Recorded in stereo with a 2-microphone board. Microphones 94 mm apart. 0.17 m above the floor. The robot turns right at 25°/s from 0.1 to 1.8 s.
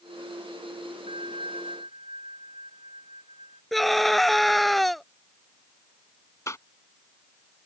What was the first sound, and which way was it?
A bell, 70° right (ahead or behind).